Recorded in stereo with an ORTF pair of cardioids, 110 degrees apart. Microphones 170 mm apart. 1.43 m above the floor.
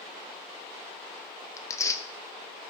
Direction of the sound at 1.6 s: 20° left.